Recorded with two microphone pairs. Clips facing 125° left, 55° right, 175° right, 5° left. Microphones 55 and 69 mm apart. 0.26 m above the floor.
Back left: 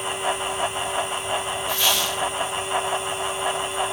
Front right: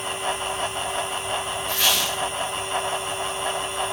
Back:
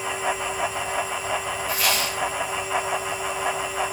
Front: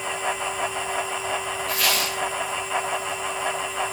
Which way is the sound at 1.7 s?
25° right.